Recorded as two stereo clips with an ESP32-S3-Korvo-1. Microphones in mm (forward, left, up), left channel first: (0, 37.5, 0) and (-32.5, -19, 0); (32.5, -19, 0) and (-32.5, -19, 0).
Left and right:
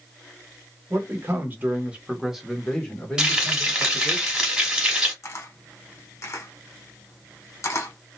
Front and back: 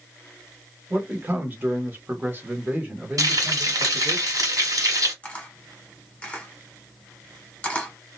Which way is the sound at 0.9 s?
130° right.